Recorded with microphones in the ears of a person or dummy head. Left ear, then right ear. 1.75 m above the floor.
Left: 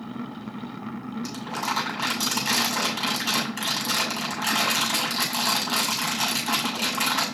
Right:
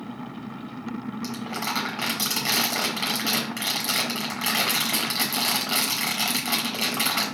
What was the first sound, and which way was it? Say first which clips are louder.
Crumpling: left 1 dB; 60° right (ahead or behind).